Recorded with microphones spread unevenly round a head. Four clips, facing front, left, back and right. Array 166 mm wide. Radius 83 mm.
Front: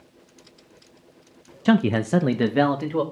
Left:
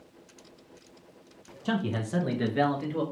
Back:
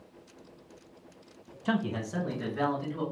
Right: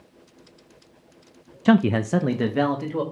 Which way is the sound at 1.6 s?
55° right.